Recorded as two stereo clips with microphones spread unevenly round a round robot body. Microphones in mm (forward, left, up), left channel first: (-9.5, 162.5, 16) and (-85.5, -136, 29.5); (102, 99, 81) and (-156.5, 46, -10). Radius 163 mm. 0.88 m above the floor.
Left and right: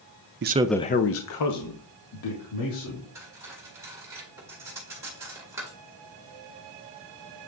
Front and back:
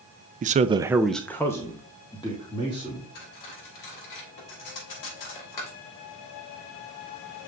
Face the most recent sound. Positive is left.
turn(degrees=-20)